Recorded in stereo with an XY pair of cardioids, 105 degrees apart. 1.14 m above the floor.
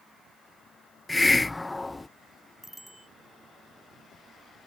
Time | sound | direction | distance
1.1 | a hiss | 15° left | ?
2.6 | a bicycle bell | straight ahead | ?